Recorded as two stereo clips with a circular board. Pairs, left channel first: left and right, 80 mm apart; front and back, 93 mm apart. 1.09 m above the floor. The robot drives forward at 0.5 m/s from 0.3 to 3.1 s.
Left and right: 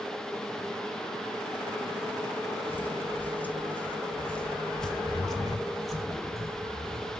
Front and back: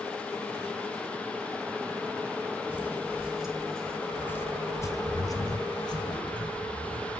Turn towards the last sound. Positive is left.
turn(degrees=-5)